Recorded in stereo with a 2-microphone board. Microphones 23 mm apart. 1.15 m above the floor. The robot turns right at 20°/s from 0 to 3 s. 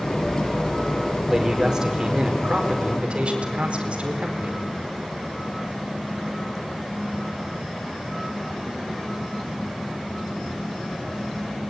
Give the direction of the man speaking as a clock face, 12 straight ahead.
5 o'clock.